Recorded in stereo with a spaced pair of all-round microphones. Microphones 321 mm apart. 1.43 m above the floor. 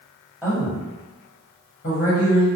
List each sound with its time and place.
0.4 s a woman speaking: 5° right (ahead or behind), 1.0 m; by 2.5 s 60° left (ahead or behind), 0.9 m